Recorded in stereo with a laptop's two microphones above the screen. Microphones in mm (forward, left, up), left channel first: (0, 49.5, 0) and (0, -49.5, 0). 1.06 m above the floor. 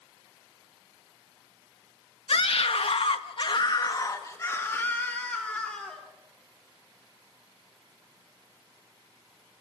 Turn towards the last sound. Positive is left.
turn(degrees=10)  # may be behind; listen again after turning